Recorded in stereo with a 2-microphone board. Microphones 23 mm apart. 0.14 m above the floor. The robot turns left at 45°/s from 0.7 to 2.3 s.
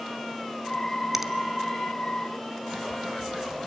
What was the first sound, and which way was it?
A finger snap, 10° right (ahead or behind).